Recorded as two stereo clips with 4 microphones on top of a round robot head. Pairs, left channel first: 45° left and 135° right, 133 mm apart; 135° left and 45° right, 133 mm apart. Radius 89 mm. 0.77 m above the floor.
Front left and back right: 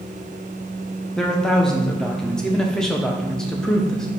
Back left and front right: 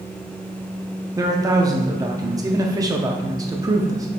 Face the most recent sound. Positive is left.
turn(degrees=-35)